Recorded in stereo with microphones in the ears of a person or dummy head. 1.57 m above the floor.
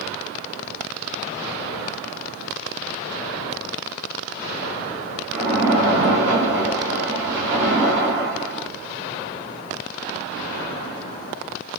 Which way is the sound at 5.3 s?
10° right (ahead or behind).